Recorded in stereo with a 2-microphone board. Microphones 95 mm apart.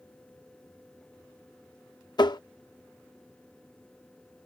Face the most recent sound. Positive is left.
turn(degrees=45)  # may be behind; listen again after turning